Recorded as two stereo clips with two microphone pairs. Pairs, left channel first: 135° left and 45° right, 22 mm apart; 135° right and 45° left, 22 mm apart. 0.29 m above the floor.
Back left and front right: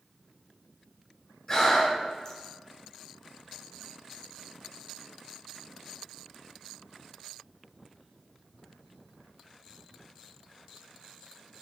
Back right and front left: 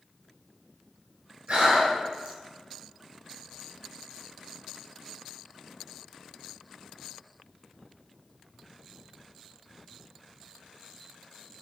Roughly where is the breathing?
Left.